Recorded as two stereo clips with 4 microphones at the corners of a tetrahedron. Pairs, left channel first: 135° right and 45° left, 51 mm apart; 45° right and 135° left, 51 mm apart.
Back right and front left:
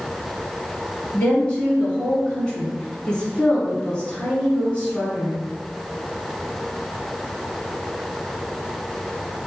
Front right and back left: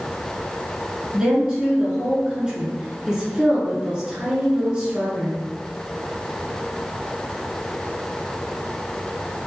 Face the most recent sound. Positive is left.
turn(degrees=-175)